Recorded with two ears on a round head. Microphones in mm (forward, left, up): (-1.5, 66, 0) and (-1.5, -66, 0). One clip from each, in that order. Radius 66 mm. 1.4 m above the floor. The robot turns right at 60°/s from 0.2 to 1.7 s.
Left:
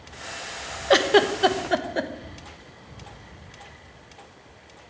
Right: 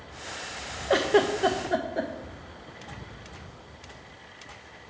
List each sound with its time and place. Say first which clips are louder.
0.9 s a giggle: left 4 dB; 65° left (ahead or behind), 1.0 m; by 2.1 s 55° left (ahead or behind), 1.0 m